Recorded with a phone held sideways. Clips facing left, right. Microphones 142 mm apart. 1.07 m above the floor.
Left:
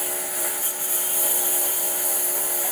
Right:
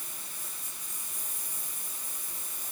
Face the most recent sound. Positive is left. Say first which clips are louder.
# left 18 dB
turn(degrees=80)